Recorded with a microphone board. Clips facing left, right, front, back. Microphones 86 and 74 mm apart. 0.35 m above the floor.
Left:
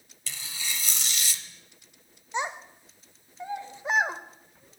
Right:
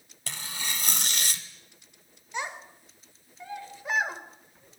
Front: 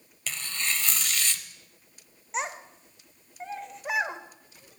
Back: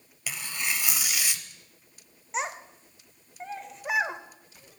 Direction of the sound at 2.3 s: 90° left.